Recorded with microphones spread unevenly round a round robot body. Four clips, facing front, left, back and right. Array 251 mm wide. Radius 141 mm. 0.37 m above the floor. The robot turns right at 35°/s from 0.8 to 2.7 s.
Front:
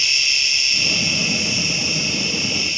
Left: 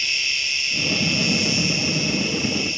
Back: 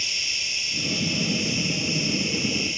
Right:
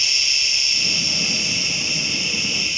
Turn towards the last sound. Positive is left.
turn(degrees=110)